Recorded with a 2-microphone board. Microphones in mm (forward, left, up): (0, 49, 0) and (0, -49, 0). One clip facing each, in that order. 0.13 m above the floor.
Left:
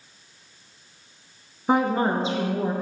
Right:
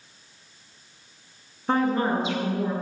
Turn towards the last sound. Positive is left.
turn(degrees=45)  # may be behind; listen again after turning